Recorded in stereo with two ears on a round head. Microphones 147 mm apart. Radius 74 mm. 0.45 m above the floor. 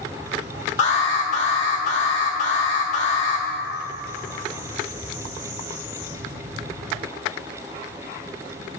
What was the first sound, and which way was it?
An alarm, 40° left (ahead or behind).